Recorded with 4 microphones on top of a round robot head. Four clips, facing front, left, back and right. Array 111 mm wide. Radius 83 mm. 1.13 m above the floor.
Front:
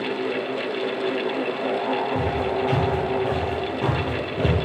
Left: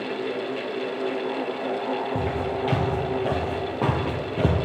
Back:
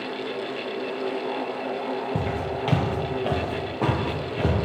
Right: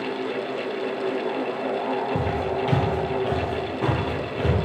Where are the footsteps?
165° right, 1.5 m; by 4.5 s 85° left, 1.5 m.